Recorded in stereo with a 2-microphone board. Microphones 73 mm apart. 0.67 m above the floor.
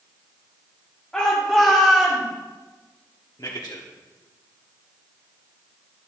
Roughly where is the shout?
Centre.